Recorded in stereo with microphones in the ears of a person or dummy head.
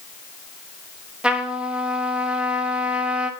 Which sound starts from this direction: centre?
A trumpet, at 1.2 s.